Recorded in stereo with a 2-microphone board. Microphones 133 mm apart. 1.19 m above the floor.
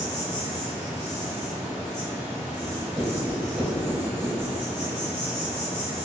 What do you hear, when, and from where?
0.0 s an insect: 20° right (ahead or behind), 0.8 m
2.6 s writing: centre (ahead or behind), 1.2 m